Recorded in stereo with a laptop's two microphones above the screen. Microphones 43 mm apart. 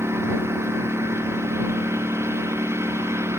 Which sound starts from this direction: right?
A lawn mower, at 0.0 s.